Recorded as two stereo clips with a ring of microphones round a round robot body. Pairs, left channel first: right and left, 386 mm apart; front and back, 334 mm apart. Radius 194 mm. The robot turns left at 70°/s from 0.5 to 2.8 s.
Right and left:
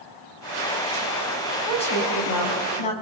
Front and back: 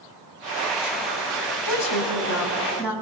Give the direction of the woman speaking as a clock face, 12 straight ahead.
12 o'clock.